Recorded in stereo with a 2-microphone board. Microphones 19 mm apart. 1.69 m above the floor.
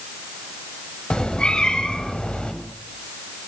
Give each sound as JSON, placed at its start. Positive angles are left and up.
{"t": 1.1, "sound": "a cat meowing", "side_deg": 55, "distance_m": 3.0}